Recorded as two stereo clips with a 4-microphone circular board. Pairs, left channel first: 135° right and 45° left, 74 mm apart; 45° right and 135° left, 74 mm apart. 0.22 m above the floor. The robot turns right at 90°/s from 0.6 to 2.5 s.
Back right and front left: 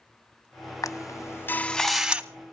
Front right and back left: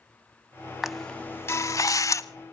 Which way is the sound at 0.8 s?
145° right.